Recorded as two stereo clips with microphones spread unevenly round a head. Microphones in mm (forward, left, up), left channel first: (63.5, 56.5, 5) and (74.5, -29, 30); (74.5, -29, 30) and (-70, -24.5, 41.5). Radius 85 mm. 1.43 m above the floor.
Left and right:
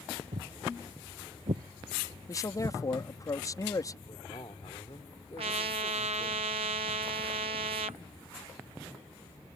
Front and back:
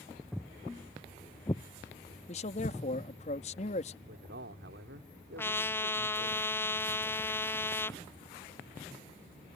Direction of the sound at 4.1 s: 160° left.